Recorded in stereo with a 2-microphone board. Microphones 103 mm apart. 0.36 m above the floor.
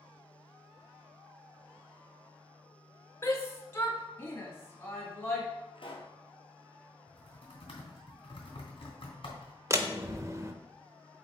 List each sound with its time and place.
3.2 s a shout: 25° left (ahead or behind), 1.0 m
5.8 s a pop: 60° left (ahead or behind), 1.4 m
7.1 s typing on a keyboard: 55° left (ahead or behind), 3 m
9.7 s a door slam: 30° right (ahead or behind), 0.6 m